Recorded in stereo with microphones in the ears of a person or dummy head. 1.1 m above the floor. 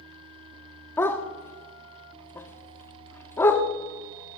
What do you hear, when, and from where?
1.0 s a dog barking: 15° left (ahead or behind), 0.9 m